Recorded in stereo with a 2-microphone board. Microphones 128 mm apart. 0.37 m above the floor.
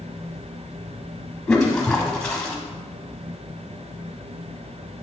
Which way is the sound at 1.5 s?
5° left (ahead or behind).